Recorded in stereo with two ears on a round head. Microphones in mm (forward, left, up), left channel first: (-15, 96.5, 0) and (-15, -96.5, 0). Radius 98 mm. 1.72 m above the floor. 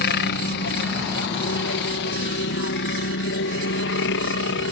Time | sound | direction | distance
0.0 | a helicopter | 55° left (ahead or behind) | ?